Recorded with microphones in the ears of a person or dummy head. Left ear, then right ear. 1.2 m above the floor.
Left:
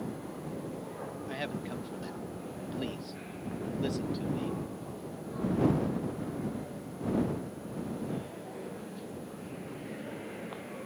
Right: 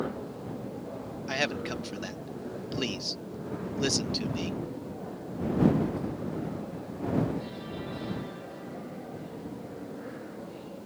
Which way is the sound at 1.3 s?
40° right (ahead or behind).